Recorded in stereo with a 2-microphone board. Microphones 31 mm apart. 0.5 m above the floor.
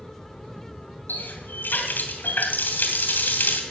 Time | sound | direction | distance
1.1 | a running tap | 80° left | 3 m